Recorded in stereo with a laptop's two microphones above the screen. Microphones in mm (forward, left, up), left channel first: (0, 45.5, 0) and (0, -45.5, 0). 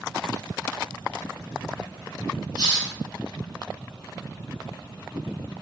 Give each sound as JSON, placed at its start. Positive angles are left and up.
{"t": 2.6, "sound": "a hiss", "side_deg": 50, "distance_m": 1.6}